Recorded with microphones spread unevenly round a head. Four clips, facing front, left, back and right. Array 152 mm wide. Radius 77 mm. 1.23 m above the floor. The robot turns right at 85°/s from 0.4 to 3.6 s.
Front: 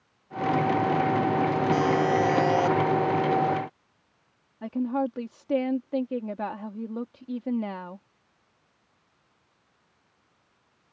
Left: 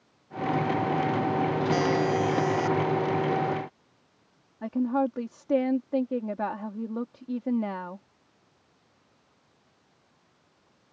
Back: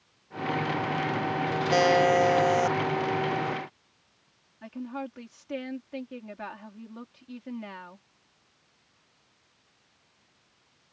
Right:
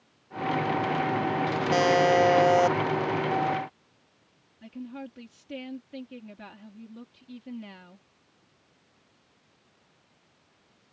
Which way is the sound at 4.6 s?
50° left.